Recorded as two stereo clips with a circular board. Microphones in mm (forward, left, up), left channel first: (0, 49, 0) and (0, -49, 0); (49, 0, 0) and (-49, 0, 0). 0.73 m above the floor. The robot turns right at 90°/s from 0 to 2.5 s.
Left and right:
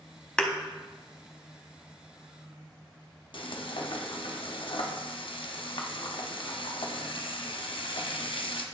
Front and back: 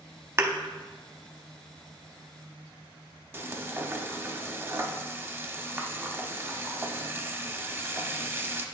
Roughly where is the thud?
Behind.